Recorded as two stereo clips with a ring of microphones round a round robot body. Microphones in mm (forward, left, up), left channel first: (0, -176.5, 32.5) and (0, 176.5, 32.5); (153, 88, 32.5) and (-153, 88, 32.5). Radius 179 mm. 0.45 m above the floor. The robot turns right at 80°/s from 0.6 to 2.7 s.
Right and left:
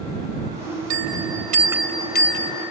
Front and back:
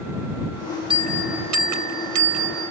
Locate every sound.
0.9 s a bell: 105° left; by 2.7 s 110° right